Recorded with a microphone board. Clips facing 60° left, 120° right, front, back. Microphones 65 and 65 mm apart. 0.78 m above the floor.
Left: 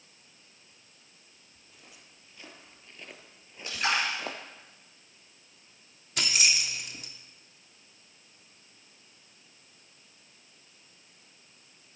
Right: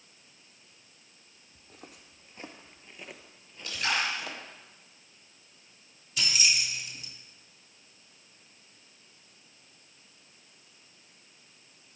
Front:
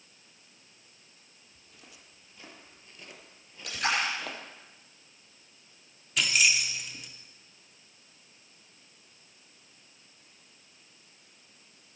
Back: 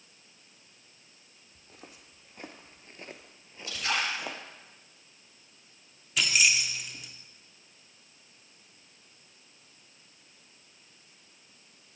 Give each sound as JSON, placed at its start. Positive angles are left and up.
{"t": 1.6, "sound": "footsteps", "azimuth_deg": -145, "distance_m": 1.5}
{"t": 3.6, "sound": "a splash", "azimuth_deg": 5, "distance_m": 5.0}
{"t": 6.2, "sound": "keys jangling", "azimuth_deg": 90, "distance_m": 1.0}